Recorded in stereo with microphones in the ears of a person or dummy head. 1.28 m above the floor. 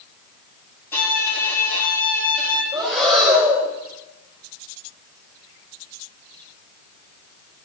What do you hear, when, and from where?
0.9 s a violin: 15° left (ahead or behind), 7 m
2.7 s breathing: centre (ahead or behind), 6 m